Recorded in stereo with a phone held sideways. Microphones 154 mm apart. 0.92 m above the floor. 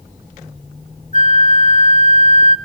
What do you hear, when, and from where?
1.1 s a flute: 55° left (ahead or behind), 0.7 m